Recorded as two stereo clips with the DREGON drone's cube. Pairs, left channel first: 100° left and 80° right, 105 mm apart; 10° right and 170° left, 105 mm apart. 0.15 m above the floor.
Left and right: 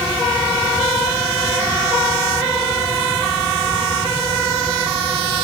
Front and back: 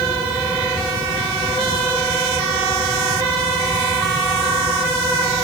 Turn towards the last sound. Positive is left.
No sound to turn to.